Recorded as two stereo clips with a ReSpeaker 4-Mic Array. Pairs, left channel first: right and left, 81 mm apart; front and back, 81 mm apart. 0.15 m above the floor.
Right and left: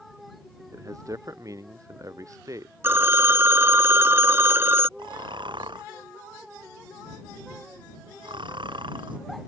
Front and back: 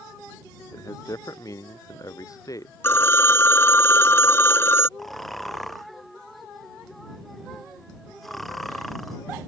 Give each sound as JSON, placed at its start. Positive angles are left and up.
{"t": 0.7, "sound": "a man speaking", "azimuth_deg": 45}
{"t": 2.8, "sound": "a phone ringing", "azimuth_deg": 45}
{"t": 5.0, "sound": "snoring", "azimuth_deg": 90}